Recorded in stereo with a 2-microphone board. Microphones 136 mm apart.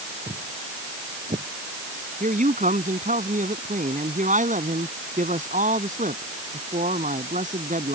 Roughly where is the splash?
I don't hear a splash.